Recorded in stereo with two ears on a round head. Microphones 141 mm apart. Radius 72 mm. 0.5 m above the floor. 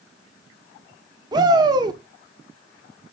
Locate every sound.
1.3 s a shout: 25° right (ahead or behind), 1.1 m